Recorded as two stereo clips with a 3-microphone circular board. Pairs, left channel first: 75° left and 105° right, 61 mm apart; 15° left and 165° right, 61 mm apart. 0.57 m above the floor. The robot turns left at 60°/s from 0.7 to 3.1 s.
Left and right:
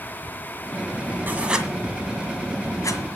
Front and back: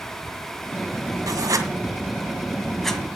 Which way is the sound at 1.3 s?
165° right.